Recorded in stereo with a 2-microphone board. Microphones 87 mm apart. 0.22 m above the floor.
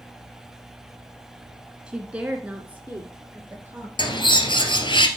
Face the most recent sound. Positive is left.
turn(degrees=80)